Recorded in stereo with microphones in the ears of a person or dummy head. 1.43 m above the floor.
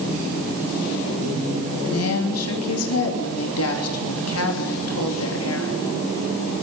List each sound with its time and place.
1.8 s a woman speaking: 85° left, 3 m